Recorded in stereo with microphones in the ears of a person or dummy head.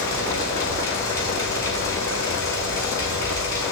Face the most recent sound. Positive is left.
turn(degrees=15)  # may be behind; listen again after turning